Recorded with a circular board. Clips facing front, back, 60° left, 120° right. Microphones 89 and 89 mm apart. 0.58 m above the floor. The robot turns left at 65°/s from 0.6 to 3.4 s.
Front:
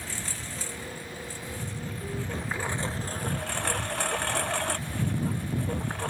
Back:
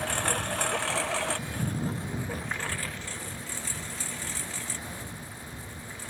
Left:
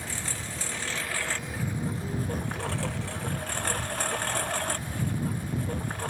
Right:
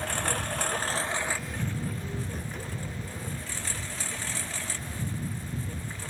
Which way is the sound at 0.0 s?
150° right.